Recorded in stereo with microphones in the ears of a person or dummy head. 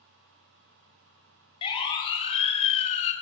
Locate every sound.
1.6 s a siren: 30° left (ahead or behind), 5 m; by 3.1 s 40° left (ahead or behind), 3.5 m